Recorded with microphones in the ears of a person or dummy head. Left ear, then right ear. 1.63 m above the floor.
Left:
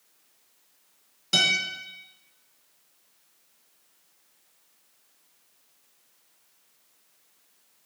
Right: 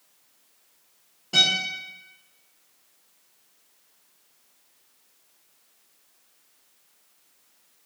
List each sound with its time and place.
1.3 s a guitar: 80° left, 1.6 m